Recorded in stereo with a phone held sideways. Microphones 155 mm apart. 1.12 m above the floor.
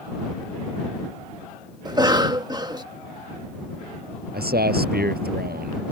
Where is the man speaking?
85° right.